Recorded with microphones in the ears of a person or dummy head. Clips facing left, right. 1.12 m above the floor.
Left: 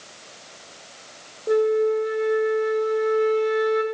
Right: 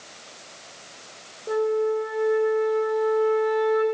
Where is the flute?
25° left (ahead or behind), 0.9 m.